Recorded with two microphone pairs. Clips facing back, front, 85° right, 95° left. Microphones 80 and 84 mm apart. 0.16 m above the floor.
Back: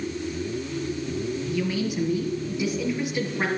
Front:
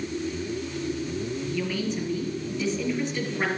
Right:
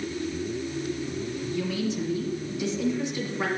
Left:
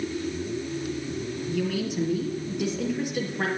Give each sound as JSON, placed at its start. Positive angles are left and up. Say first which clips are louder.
{"t": 1.5, "sound": "a woman speaking", "louder": "back 2 dB, left 1 dB", "azimuth_deg": 100, "distance_m": 3.5}